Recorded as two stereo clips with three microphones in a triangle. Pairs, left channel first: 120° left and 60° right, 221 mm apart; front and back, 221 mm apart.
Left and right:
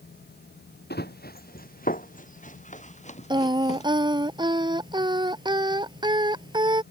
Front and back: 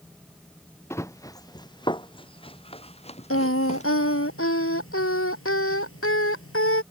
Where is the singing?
10° left.